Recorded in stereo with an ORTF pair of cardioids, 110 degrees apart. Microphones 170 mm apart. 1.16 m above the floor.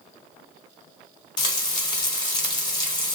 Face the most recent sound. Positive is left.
turn(degrees=30)